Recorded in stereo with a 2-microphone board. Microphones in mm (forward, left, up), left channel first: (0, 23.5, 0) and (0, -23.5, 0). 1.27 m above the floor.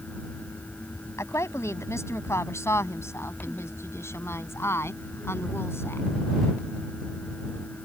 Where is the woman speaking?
70° left (ahead or behind); by 6.1 s 55° left (ahead or behind).